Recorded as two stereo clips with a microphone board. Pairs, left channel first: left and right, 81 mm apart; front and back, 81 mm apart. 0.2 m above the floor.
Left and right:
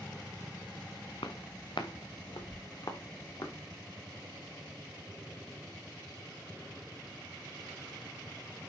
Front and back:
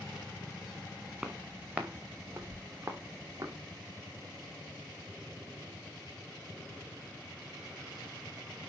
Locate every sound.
1.2 s footsteps: 100° left, 2 m; by 3.5 s 130° left, 3.5 m